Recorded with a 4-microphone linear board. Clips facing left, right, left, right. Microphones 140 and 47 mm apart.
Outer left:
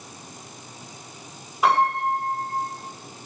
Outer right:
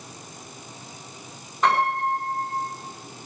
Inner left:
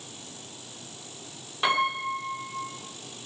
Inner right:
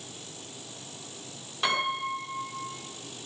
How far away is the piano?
About 5.5 m.